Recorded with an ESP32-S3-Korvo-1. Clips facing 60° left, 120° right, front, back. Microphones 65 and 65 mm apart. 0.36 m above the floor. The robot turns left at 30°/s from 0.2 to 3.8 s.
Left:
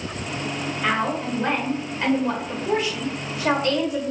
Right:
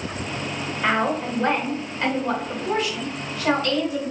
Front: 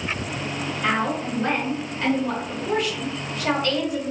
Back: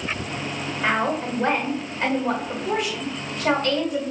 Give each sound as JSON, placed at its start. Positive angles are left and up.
{"t": 0.8, "sound": "a woman speaking", "azimuth_deg": 170, "distance_m": 1.1}